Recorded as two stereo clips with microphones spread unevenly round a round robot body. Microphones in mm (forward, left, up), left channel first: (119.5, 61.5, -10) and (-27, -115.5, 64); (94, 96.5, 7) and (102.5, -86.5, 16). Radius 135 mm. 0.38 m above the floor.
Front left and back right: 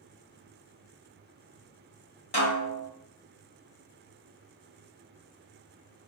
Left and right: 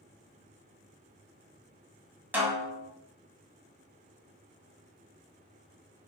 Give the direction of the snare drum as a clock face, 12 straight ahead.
12 o'clock.